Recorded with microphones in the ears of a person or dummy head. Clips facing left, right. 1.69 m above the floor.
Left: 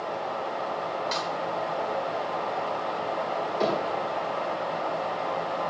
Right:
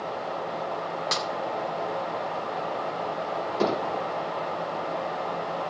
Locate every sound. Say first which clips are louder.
1.1 s a snare drum: even; 75° right (ahead or behind), 2.5 m
3.6 s hammering: right 1 dB; 70° right (ahead or behind), 7 m